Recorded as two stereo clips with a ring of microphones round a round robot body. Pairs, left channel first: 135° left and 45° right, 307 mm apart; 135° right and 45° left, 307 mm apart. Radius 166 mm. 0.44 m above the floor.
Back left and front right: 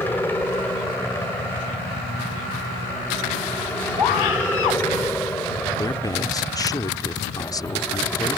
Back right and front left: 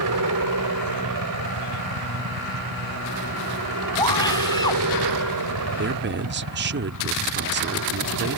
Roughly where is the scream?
Behind left.